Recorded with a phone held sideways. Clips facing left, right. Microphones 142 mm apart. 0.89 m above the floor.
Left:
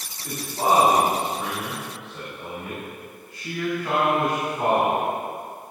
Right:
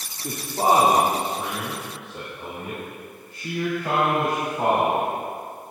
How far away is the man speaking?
About 1.6 m.